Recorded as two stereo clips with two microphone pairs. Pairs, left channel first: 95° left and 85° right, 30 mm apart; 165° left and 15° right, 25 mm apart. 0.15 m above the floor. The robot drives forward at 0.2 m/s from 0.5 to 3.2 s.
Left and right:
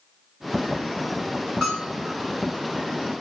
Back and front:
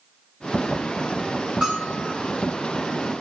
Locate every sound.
1.6 s a bell: 40° left, 1.4 m; by 2.1 s 45° left, 1.4 m